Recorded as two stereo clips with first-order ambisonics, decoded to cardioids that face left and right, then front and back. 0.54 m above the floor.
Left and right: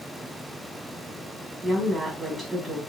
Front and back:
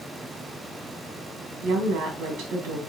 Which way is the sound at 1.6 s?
165° right.